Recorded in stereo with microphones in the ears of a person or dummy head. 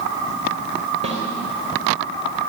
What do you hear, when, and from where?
1.0 s a snare drum: 35° right (ahead or behind), 3.5 m